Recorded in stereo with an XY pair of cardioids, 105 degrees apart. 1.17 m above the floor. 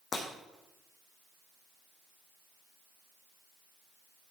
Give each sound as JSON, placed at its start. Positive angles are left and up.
{"t": 0.1, "sound": "breaking glass", "azimuth_deg": 40, "distance_m": 4.0}